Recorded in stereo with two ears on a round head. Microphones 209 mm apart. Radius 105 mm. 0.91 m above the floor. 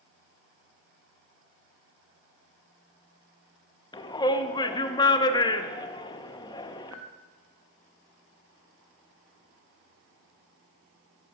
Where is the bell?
75° right (ahead or behind), 4 m.